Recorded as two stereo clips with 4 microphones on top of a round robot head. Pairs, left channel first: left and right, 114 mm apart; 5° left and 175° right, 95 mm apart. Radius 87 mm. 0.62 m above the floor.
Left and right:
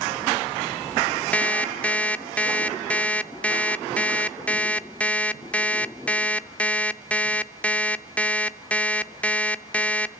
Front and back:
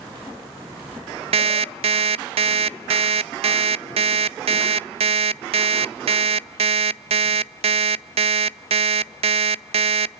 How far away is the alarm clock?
About 0.6 m.